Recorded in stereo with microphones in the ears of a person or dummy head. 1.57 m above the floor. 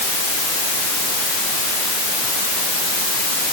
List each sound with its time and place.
Only background noise.